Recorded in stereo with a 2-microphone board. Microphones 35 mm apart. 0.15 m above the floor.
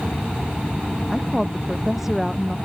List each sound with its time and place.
1.1 s a woman speaking: 10° right (ahead or behind); by 2.6 s 5° right (ahead or behind)